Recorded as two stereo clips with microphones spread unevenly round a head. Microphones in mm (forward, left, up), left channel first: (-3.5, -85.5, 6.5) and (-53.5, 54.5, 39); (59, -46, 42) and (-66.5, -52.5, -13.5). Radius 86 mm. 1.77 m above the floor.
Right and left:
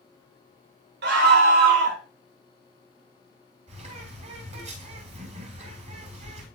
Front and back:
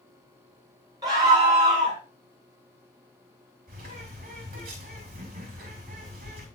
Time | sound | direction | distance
1.0 | a scream | 115° left | 2.0 m
3.7 | a bird | 150° left | 6.5 m